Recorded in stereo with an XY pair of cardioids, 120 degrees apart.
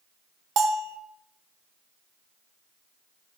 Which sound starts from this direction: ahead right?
A bell, at 0.6 s.